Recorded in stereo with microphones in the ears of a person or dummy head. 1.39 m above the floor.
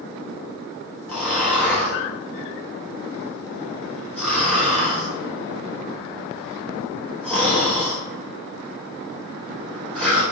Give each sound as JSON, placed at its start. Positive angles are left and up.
{"t": 1.1, "sound": "snoring", "side_deg": 5, "distance_m": 0.8}